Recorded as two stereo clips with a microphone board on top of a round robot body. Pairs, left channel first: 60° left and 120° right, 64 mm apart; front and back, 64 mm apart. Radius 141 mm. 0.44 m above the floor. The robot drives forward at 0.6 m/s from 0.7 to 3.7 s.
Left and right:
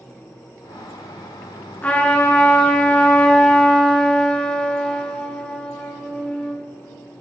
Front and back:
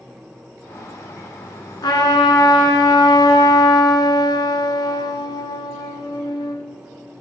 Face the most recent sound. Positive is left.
turn(degrees=-15)